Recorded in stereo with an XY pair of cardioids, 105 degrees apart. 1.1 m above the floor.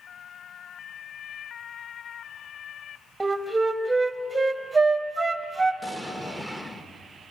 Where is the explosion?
Straight ahead, 1.2 m.